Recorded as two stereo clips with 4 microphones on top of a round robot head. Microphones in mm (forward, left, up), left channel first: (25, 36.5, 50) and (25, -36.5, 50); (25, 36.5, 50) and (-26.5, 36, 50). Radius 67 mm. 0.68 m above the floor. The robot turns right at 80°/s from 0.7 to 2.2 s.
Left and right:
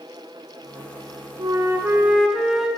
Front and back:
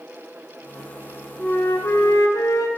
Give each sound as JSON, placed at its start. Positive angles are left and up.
{"t": 1.4, "sound": "a flute", "azimuth_deg": -70, "distance_m": 0.5}